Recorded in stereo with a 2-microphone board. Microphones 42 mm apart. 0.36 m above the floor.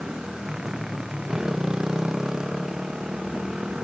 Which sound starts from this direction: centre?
A motorcycle, at 0.0 s.